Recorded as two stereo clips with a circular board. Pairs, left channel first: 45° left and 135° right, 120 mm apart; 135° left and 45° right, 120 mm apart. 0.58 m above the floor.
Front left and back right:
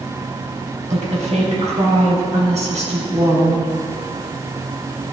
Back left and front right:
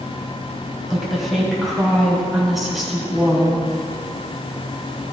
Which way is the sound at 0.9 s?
135° right.